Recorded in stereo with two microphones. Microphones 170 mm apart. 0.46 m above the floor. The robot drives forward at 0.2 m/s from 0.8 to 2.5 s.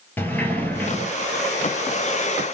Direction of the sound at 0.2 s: 10° left (ahead or behind).